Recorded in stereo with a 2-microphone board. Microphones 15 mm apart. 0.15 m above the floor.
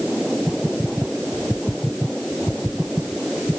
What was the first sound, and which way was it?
Only background noise.